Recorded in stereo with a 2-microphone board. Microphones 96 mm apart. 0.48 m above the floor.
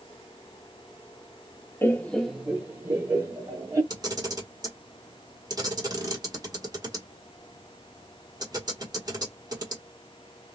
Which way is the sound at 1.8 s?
25° left (ahead or behind).